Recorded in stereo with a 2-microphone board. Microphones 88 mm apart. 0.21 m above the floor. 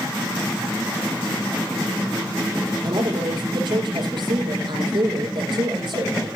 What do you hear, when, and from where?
2.8 s a woman speaking: 65° right (ahead or behind), 7.5 m